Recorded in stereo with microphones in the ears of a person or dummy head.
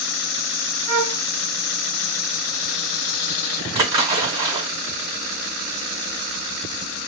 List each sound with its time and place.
0.9 s a flute: 40° right (ahead or behind), 1.6 m
3.8 s a splash: 25° right (ahead or behind), 2 m